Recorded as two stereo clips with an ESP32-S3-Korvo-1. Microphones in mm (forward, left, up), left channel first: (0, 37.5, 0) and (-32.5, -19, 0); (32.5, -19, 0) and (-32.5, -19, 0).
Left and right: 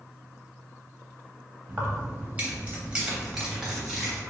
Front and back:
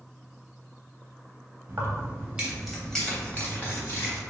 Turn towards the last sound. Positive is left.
turn(degrees=-30)